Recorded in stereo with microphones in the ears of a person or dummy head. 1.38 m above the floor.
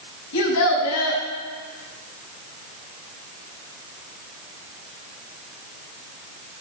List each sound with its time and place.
0.3 s a child speaking: 80° left, 7 m